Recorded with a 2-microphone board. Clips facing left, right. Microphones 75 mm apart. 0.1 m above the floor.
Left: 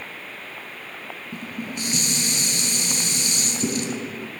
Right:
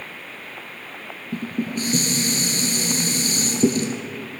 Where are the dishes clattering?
40° right (ahead or behind), 1.3 m.